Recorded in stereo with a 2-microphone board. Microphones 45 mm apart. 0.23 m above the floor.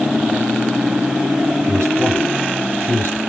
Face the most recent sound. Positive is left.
turn(degrees=-60)  # may be behind; listen again after turning